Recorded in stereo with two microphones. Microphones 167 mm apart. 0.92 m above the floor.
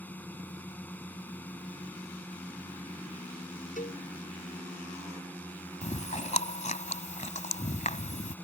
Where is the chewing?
50° left (ahead or behind).